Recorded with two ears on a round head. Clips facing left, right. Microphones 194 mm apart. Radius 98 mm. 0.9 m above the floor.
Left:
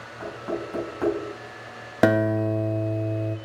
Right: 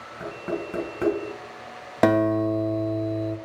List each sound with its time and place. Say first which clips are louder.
0.2 s knocking: right 1 dB; 35° right (ahead or behind), 4.5 m
2.0 s a guitar: right 1 dB; 5° left (ahead or behind), 0.7 m